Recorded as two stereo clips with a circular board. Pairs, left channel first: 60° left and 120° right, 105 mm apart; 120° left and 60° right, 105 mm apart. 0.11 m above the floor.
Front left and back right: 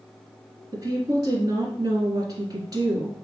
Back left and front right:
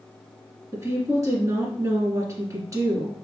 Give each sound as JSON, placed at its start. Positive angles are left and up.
{"t": 0.7, "sound": "a woman speaking", "azimuth_deg": -95, "distance_m": 1.6}